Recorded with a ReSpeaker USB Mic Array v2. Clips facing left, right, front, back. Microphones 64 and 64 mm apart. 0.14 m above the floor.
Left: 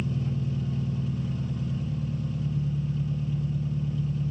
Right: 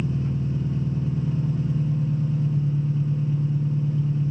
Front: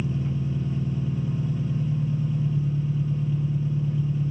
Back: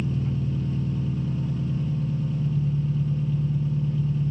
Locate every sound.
0.0 s an engine running: 60° right, 1.3 m